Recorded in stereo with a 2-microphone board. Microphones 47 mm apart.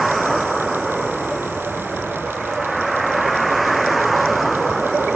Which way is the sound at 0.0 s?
Centre (ahead or behind).